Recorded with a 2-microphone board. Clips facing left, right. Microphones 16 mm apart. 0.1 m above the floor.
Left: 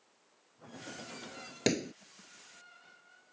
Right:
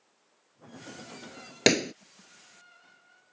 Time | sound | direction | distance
1.7 | a pop | 40° right (ahead or behind) | ?